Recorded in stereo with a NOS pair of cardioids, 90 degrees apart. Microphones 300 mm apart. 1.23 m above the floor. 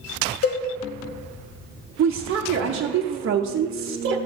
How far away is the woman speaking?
About 0.8 m.